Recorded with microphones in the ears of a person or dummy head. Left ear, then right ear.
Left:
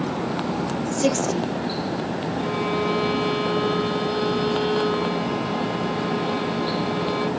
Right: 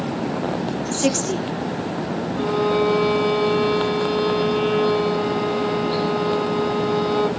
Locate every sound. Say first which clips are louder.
0.9 s a woman speaking: even; 10° right (ahead or behind), 0.7 m
2.4 s a violin: right 6 dB; 10° right (ahead or behind), 1.0 m